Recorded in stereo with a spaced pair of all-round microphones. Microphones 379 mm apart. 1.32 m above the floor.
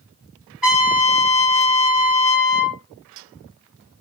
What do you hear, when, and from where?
0.6 s a trumpet: 65° right (ahead or behind), 3 m